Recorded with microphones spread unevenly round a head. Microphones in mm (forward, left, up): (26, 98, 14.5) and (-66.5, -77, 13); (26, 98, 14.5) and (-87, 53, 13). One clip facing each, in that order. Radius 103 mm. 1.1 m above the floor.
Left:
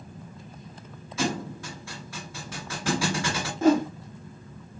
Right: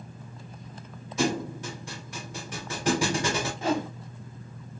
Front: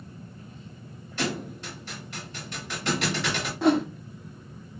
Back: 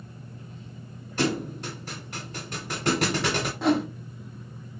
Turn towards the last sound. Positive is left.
turn(degrees=110)